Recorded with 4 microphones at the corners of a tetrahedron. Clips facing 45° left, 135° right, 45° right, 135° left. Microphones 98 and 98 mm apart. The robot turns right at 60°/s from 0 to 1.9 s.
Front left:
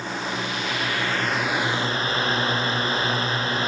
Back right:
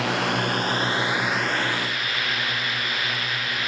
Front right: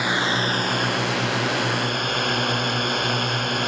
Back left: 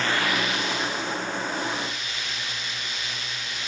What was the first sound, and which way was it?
A drone, 125° right.